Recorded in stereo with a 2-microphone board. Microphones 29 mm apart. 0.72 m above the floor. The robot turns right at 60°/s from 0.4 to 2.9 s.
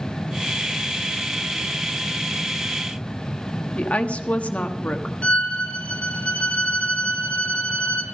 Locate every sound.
3.8 s a woman speaking: 50° left (ahead or behind), 1.3 m
5.2 s a violin: 50° left (ahead or behind), 1.9 m